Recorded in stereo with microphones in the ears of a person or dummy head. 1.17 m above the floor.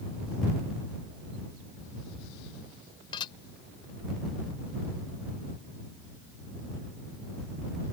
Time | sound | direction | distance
3.1 | dishes clattering | 30° left (ahead or behind) | ?